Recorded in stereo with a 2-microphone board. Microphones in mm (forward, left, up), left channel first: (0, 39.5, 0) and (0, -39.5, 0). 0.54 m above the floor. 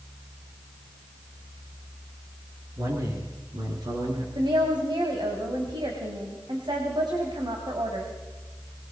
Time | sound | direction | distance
2.8 | a man speaking | 50° right (ahead or behind) | 7 m
4.3 | a woman speaking | 75° right (ahead or behind) | 3 m